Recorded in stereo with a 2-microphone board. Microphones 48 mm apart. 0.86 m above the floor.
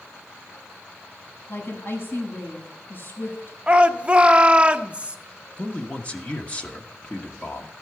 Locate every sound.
1.5 s a woman speaking: 45° left (ahead or behind), 5 m
3.7 s a shout: 25° right (ahead or behind), 0.7 m
5.6 s a man speaking: 25° left (ahead or behind), 0.8 m